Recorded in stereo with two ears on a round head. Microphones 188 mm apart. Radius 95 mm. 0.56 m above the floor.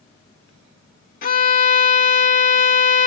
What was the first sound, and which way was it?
A violin, 45° left (ahead or behind).